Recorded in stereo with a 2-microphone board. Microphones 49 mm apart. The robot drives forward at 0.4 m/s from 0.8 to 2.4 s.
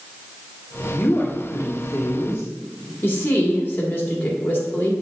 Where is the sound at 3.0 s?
40° left (ahead or behind), 1.8 m.